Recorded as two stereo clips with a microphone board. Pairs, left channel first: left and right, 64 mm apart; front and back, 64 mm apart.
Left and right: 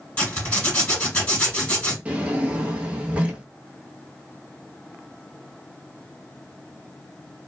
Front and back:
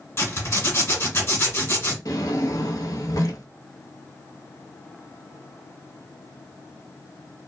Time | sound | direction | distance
0.2 | a zipper | 30° left | 1.6 m
2.0 | a drawer | 25° right | 0.7 m